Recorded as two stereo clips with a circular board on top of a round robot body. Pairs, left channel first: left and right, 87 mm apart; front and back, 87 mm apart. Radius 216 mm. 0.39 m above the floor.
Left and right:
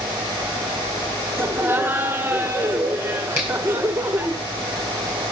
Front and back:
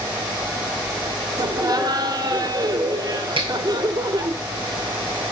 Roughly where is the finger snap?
Behind.